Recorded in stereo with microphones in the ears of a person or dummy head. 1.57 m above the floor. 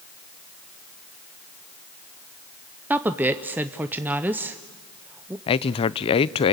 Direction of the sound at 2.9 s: 10° right (ahead or behind).